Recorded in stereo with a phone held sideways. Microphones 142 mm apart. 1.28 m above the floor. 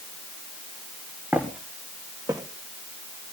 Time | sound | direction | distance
1.3 | footsteps | 10° right (ahead or behind) | 3 m